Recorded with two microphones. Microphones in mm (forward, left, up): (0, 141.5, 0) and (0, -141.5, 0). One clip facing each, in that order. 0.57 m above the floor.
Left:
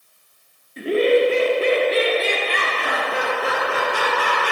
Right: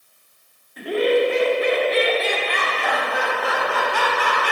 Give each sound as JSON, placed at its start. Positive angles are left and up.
{"t": 0.8, "sound": "laughter", "side_deg": 30, "distance_m": 1.4}